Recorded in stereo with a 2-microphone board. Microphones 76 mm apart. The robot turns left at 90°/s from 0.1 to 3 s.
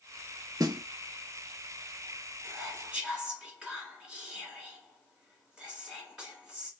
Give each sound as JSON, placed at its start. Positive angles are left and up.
{"t": 0.6, "sound": "a snare drum", "side_deg": -50, "distance_m": 0.6}
{"t": 2.4, "sound": "whispering", "side_deg": -25, "distance_m": 1.3}